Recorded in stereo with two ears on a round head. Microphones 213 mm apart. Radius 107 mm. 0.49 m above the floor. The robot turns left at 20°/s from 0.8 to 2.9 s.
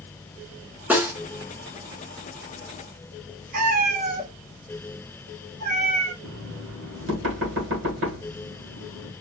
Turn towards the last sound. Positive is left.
turn(degrees=-55)  # may be behind; listen again after turning